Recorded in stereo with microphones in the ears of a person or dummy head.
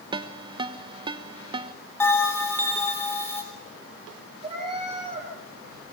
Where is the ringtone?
25° right (ahead or behind), 1.1 m.